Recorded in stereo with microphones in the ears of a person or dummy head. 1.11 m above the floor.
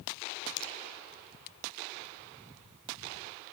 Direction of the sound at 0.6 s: 25° left (ahead or behind).